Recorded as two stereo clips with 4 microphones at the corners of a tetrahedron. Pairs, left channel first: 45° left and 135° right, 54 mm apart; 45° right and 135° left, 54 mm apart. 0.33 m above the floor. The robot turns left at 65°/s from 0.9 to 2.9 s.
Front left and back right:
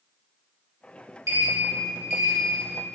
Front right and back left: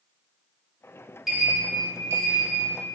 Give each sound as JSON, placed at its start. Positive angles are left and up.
{"t": 1.3, "sound": "a sliding door", "azimuth_deg": -135, "distance_m": 0.7}